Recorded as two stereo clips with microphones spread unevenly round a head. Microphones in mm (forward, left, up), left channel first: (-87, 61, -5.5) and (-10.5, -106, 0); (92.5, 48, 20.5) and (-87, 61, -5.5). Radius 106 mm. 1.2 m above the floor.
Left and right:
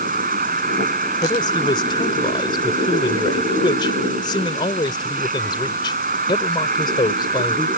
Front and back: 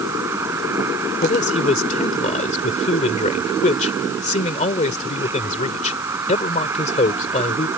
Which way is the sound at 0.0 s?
105° right.